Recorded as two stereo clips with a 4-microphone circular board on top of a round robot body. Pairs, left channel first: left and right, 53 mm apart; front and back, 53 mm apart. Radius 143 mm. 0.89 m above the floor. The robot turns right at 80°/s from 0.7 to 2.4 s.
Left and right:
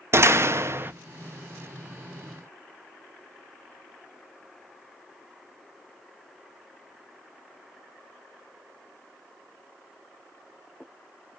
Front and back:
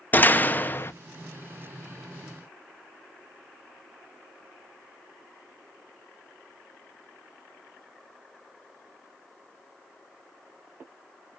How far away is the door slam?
About 0.6 m.